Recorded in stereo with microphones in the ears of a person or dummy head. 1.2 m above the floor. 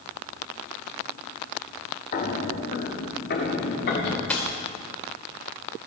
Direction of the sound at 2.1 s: 45° left (ahead or behind).